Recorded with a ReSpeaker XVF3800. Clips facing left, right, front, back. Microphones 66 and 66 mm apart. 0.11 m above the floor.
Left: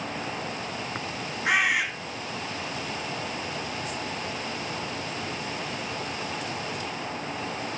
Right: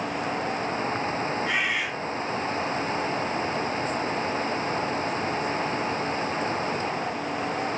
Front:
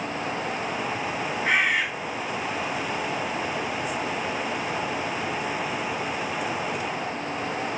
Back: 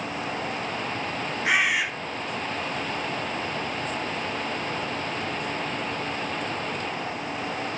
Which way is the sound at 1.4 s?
100° left.